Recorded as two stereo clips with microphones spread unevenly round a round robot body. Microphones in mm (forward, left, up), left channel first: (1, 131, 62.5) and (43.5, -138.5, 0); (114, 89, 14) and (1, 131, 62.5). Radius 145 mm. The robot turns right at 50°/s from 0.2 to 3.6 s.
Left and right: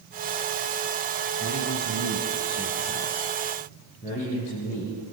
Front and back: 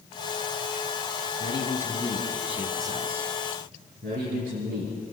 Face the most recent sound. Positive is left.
turn(degrees=170)